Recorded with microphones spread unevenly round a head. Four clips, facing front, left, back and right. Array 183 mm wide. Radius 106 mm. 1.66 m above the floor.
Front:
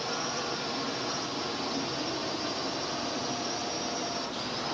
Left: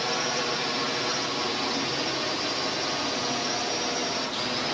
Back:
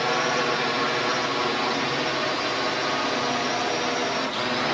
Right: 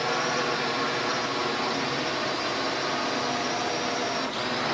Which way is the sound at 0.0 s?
170° right.